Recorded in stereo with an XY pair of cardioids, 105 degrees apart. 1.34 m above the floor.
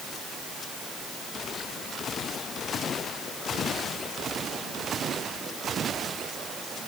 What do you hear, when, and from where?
Only background noise.